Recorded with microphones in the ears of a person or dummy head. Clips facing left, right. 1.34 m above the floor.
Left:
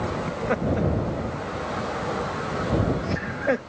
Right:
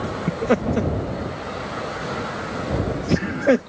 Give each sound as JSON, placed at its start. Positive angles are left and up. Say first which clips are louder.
{"t": 0.3, "sound": "laughter", "louder": "right 7 dB", "side_deg": -45}